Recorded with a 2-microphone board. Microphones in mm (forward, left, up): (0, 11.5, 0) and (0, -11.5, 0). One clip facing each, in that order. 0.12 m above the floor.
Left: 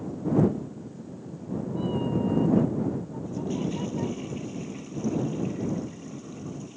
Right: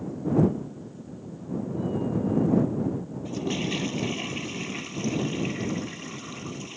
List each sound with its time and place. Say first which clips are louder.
0.9 s a cat meowing: even; 30° left (ahead or behind); by 4.2 s 40° left (ahead or behind)
3.2 s a toilet flushing: right 2 dB; 55° right (ahead or behind)